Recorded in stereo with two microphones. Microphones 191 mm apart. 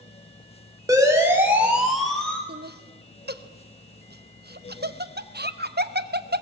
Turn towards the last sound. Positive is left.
turn(degrees=-55)  # may be behind; listen again after turning